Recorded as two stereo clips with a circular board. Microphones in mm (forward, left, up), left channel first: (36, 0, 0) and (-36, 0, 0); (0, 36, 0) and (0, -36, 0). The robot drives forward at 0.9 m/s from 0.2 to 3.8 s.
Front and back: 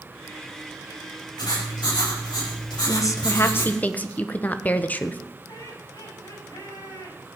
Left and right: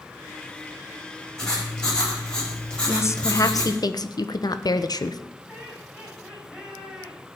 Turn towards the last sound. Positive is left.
turn(degrees=-5)